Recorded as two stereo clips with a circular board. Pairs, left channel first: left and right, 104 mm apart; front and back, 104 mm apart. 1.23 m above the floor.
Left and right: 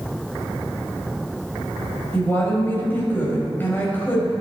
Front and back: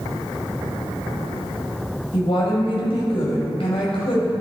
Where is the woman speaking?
20° left, 6.5 m.